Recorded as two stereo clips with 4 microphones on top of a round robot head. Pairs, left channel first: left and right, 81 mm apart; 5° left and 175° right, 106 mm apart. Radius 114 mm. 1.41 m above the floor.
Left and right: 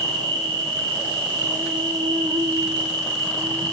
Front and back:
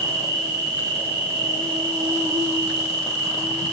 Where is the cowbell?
No cowbell in this recording.